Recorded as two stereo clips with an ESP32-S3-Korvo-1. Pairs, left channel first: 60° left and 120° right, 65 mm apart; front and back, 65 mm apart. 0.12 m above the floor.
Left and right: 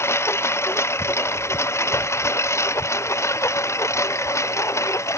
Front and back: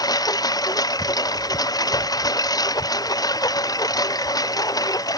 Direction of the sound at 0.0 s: 15° left.